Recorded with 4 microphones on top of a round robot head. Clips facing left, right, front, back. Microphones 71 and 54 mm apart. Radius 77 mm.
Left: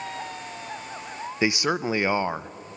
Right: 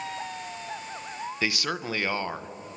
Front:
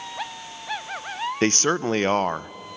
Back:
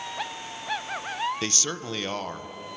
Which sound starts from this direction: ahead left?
A man speaking, at 1.4 s.